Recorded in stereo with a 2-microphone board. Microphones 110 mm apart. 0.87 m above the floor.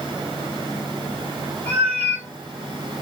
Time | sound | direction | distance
1.7 | a cat meowing | 80° right | 1.3 m